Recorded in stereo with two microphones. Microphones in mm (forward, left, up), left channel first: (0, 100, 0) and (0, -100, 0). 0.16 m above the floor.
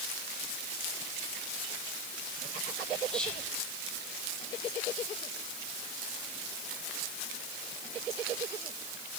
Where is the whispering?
5° left (ahead or behind), 4.5 m.